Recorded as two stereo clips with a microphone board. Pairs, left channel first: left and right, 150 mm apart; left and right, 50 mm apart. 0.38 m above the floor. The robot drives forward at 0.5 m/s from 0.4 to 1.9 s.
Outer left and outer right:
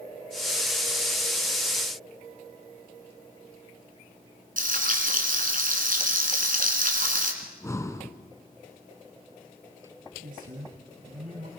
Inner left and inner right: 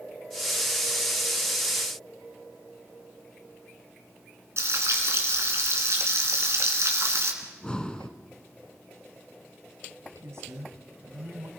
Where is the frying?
65° right (ahead or behind), 3 m.